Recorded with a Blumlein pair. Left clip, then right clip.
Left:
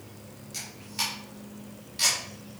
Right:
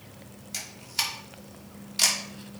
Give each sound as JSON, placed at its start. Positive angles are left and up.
{"t": 0.5, "sound": "a camera shutter", "azimuth_deg": -65, "distance_m": 3.0}